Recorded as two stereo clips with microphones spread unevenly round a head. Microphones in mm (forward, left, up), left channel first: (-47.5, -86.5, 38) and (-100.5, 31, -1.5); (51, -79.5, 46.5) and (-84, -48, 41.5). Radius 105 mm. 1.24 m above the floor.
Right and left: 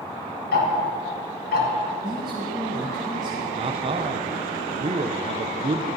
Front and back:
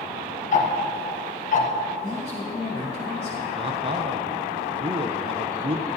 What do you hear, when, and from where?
0.5 s ticking: 45° right, 1.3 m
2.0 s a man speaking: 60° left, 1.3 m
3.5 s a man speaking: 125° left, 0.5 m